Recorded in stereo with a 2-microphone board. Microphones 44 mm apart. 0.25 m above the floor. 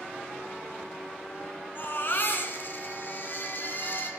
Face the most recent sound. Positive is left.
turn(degrees=50)  # may be behind; listen again after turning